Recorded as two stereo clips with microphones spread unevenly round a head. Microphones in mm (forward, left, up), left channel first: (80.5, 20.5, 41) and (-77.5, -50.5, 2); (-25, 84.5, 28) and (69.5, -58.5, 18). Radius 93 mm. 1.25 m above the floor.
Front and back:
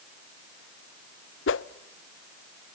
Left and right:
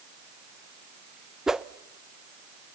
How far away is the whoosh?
About 0.5 m.